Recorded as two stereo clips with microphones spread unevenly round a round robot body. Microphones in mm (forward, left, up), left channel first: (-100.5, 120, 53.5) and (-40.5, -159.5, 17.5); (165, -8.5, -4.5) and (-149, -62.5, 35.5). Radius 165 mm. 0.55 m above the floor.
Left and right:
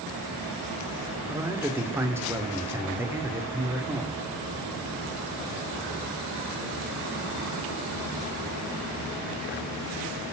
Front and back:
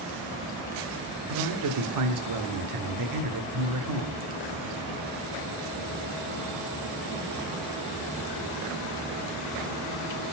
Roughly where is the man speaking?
Behind right.